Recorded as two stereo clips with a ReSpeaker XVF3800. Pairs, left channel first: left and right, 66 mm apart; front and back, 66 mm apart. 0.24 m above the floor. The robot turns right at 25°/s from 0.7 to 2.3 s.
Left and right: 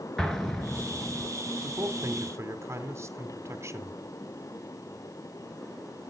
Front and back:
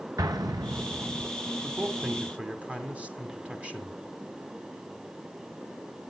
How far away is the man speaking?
About 2 m.